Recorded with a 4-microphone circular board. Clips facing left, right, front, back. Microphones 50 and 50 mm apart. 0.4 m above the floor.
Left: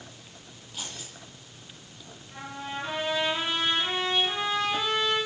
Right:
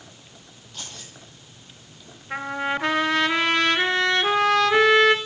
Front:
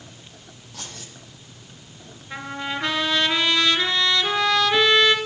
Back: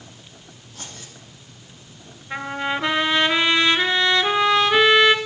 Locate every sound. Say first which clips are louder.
0.7 s keys jangling: even, front 1 dB; 10° left, 8.5 m
2.3 s a trumpet: right 11 dB, back 4 dB; 110° right, 1.8 m